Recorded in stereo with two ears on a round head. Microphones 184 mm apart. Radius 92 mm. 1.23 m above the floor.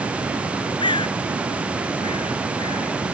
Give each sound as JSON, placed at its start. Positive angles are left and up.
{"t": 0.8, "sound": "a bird", "side_deg": 25}